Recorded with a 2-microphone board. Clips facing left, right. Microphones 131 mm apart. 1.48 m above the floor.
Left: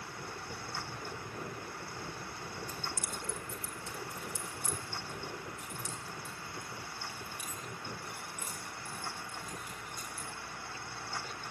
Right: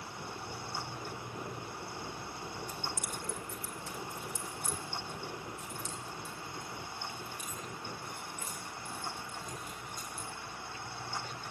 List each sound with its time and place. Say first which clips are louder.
2.7 s keys jangling: right 1 dB; 35° left (ahead or behind), 2 m; by 10.2 s 10° left (ahead or behind), 14 m